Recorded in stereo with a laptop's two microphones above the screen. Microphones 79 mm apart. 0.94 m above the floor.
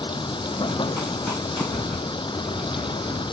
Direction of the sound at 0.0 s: 90° left.